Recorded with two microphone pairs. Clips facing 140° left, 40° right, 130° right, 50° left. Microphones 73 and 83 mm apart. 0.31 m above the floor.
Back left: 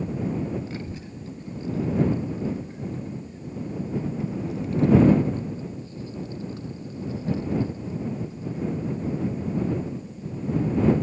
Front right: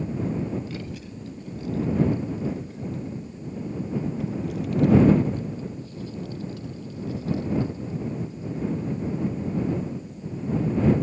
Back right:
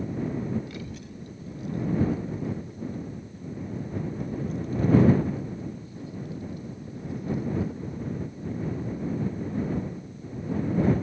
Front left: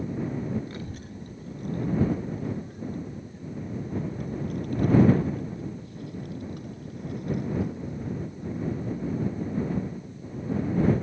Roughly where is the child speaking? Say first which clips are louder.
Even, even; left.